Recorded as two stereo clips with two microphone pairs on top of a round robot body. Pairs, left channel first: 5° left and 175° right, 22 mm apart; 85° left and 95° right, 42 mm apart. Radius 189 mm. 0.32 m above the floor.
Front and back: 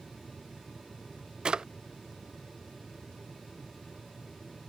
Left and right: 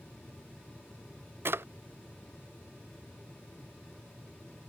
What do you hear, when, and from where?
1.4 s a drawer: 125° right